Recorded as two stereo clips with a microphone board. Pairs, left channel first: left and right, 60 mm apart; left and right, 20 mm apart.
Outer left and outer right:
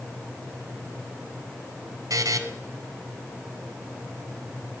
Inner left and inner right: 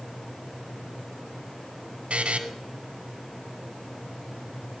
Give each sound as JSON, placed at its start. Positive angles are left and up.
{"t": 2.1, "sound": "a buzzer", "side_deg": -80, "distance_m": 1.1}